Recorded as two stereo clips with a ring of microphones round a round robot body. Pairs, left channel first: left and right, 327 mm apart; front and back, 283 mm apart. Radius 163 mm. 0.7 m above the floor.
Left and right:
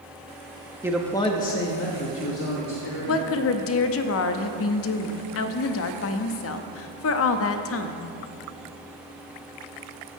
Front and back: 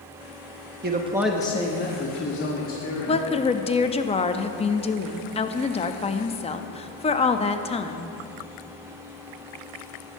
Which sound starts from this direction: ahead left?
A woman speaking, at 3.1 s.